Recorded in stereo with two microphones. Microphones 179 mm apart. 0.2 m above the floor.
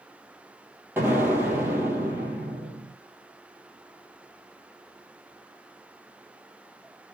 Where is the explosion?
10° right (ahead or behind), 2.5 m.